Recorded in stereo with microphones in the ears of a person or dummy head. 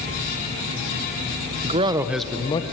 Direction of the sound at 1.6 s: 40° right (ahead or behind).